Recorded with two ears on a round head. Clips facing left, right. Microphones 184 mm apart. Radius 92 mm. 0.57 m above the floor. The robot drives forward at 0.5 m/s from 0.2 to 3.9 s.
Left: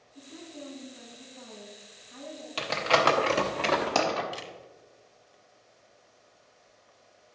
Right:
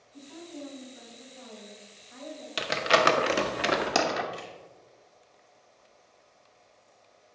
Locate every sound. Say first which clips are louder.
0.1 s a woman speaking: right 2 dB; 70° right (ahead or behind), 3.5 m; by 2.5 s 55° right (ahead or behind), 4 m
2.6 s crumpling: right 1 dB; 15° right (ahead or behind), 0.8 m
4.3 s a camera shutter: even; 35° left (ahead or behind), 1.3 m